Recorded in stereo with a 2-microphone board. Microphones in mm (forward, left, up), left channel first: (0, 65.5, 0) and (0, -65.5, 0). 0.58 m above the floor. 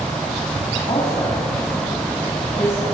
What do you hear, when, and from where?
0.9 s a woman speaking: 50° left (ahead or behind), 4 m